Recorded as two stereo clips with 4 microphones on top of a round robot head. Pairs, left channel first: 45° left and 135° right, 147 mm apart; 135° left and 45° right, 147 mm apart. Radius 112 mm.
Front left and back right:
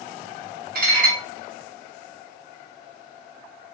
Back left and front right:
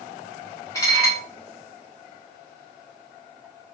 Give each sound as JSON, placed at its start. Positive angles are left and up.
{"t": 0.8, "sound": "dishes clattering", "azimuth_deg": -155, "distance_m": 1.3}